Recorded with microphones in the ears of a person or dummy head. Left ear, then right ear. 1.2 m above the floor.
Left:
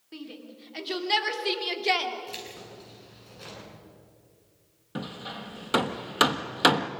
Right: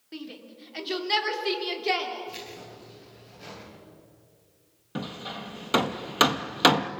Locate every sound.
0.1 s a shout: 5° right (ahead or behind), 2.5 m; by 2.1 s 20° left (ahead or behind), 2.5 m
2.3 s keys jangling: 30° left (ahead or behind), 8 m
5.0 s hammering: 5° right (ahead or behind), 0.7 m